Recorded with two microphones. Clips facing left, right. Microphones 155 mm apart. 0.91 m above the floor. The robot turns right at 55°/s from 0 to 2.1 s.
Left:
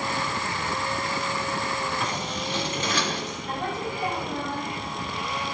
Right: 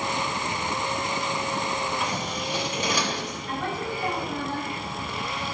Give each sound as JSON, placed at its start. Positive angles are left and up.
{"t": 2.0, "sound": "scissors", "side_deg": -5, "distance_m": 3.0}
{"t": 3.5, "sound": "a woman speaking", "side_deg": 25, "distance_m": 5.5}